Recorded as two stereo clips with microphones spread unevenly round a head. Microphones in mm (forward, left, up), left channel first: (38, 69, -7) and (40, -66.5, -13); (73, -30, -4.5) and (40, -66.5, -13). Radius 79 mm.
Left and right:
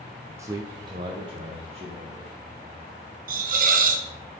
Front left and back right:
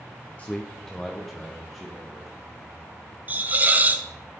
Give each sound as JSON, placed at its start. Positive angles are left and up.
{"t": 0.4, "sound": "a man speaking", "azimuth_deg": -20, "distance_m": 0.5}
{"t": 3.3, "sound": "a hiss", "azimuth_deg": -75, "distance_m": 0.8}